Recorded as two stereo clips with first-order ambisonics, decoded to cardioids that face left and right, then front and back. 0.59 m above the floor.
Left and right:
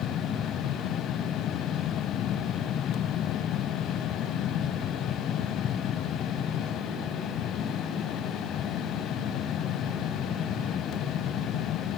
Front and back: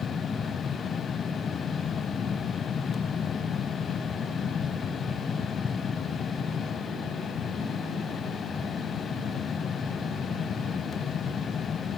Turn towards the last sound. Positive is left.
No sound to turn to.